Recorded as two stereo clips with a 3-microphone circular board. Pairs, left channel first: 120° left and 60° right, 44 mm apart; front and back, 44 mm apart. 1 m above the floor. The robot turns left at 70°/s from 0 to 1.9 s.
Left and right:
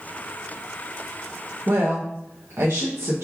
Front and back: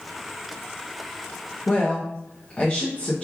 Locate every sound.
1.7 s a woman speaking: 40° right, 0.8 m; by 3.2 s 60° right, 0.8 m